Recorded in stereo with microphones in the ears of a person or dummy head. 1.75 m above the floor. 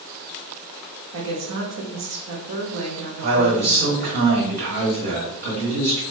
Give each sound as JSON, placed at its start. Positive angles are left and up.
{"t": 1.1, "sound": "a woman speaking", "side_deg": -65, "distance_m": 0.8}
{"t": 3.2, "sound": "a man speaking", "side_deg": -50, "distance_m": 1.3}